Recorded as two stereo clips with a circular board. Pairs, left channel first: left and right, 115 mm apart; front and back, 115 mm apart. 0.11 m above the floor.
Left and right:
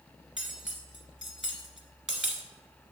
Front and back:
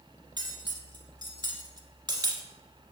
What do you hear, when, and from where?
0.4 s cutlery clinking: 175° right, 1.0 m